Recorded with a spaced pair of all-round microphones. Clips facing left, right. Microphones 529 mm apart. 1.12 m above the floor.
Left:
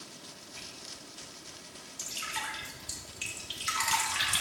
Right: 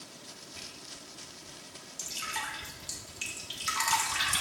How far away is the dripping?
About 1.3 m.